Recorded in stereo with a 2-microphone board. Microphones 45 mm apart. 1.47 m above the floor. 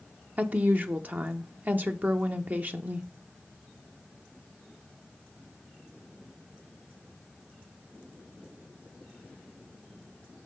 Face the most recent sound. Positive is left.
turn(degrees=-40)  # may be behind; listen again after turning